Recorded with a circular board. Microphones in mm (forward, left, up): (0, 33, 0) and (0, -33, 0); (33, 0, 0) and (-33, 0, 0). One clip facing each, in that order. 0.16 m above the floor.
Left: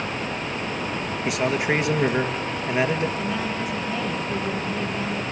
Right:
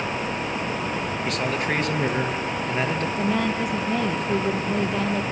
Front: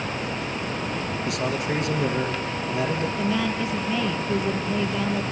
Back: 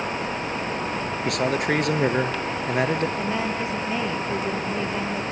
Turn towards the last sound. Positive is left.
turn(degrees=-120)